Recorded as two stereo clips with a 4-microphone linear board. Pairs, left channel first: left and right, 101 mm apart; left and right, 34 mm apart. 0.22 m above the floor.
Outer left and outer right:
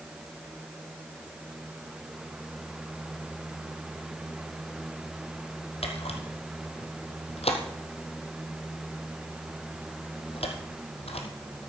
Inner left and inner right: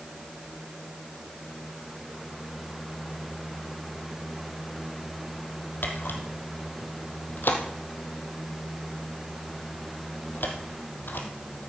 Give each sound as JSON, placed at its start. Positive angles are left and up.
{"t": 5.8, "sound": "a camera shutter", "side_deg": 75, "distance_m": 2.5}